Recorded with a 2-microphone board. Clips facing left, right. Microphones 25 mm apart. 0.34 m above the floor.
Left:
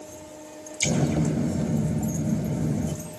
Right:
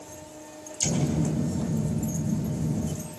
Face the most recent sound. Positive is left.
turn(degrees=65)  # may be behind; listen again after turning